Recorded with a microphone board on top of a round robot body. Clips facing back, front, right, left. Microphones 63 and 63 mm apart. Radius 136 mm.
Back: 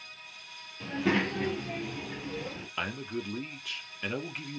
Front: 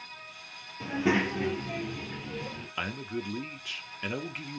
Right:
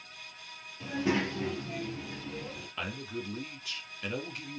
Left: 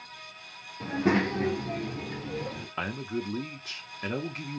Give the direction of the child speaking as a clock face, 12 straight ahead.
10 o'clock.